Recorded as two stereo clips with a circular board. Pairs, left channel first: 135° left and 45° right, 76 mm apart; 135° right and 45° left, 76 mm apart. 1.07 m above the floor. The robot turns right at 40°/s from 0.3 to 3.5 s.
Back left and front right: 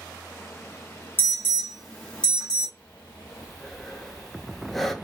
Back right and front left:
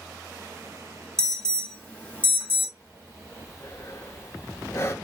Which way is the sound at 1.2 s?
150° left.